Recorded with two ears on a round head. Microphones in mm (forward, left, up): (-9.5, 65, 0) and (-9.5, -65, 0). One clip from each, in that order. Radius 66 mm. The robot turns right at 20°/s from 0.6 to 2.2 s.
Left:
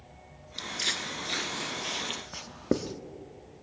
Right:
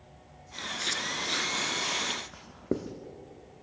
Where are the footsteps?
20° left (ahead or behind), 0.8 m; by 2.2 s 5° right (ahead or behind), 1.4 m.